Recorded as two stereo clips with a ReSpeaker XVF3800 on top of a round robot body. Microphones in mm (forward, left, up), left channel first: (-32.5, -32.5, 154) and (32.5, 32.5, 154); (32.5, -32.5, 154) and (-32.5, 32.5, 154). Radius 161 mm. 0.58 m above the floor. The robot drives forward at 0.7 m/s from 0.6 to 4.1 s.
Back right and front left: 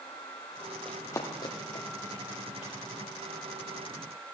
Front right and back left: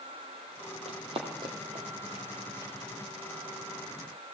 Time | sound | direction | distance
0.8 | running footsteps | 140° left | 1.2 m